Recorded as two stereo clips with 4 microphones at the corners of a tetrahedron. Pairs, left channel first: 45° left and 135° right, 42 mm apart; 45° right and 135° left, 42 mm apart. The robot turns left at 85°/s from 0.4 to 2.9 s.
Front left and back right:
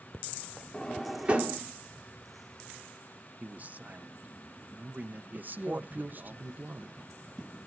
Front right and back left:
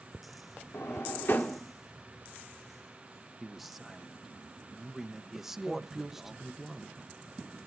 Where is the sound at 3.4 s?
140° right, 0.8 m.